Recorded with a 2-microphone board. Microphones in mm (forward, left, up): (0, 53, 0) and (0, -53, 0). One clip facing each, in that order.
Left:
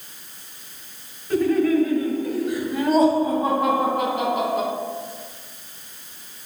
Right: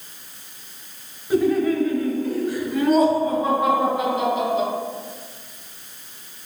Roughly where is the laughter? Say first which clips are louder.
Even; centre.